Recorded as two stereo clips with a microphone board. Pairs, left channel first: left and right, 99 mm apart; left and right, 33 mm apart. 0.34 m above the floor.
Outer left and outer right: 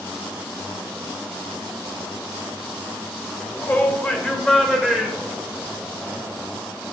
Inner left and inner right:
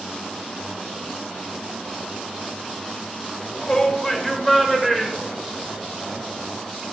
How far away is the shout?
About 1.5 m.